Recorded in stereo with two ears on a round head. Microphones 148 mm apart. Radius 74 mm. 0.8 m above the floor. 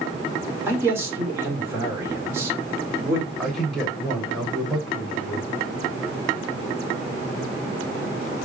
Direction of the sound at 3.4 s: 5° right (ahead or behind).